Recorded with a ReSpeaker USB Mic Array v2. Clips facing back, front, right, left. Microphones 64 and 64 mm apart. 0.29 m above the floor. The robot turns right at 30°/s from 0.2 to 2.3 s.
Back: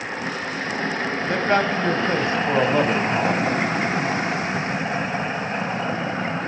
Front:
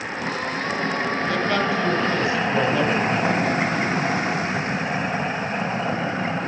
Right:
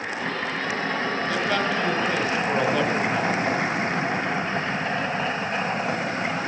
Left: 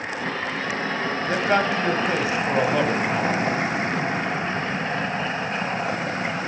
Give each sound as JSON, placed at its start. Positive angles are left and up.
{"t": 1.3, "sound": "a man speaking", "azimuth_deg": 130, "distance_m": 1.4}